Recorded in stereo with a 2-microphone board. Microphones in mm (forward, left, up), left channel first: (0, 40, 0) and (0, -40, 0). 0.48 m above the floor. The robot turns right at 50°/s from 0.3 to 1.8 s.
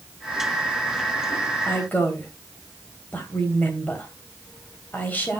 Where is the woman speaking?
30° left (ahead or behind), 2.5 m; by 5.4 s 20° left (ahead or behind), 2.5 m.